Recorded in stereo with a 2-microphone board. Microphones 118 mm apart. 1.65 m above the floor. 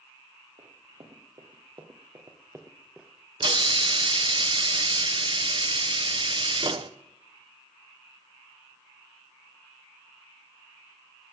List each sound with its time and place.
0.6 s running footsteps: 60° right (ahead or behind), 3 m; by 3.1 s 5° right (ahead or behind), 1.7 m
3.4 s a hiss: 45° right (ahead or behind), 0.8 m